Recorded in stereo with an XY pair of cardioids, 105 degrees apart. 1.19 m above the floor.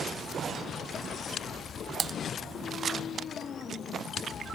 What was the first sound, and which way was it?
Typing on a keyboard, 45° right.